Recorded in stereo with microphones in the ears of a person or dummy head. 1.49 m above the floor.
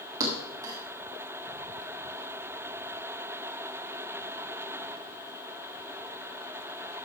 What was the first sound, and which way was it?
A thud, 20° right (ahead or behind).